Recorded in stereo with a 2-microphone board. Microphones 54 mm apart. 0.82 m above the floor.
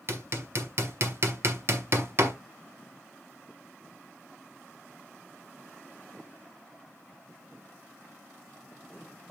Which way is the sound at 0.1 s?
50° right (ahead or behind).